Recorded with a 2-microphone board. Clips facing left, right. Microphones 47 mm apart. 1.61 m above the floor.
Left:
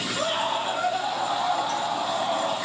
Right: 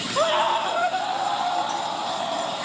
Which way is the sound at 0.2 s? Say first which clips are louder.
Right 7 dB; 45° right (ahead or behind).